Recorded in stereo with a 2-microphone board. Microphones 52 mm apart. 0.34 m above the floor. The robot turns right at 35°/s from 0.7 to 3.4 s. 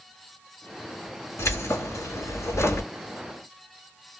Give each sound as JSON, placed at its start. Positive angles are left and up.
{"t": 1.4, "sound": "keys jangling", "azimuth_deg": 70, "distance_m": 2.0}